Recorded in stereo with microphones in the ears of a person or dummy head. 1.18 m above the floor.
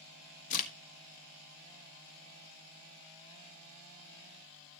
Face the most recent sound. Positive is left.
turn(degrees=45)  # may be behind; listen again after turning